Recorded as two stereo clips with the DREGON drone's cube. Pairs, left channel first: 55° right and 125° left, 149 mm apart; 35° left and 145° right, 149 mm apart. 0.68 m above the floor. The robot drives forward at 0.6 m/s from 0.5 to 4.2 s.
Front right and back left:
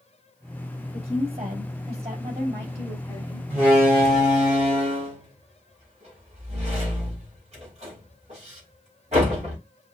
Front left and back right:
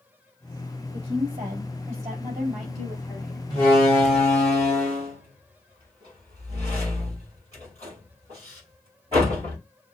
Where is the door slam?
165° left, 4.5 m.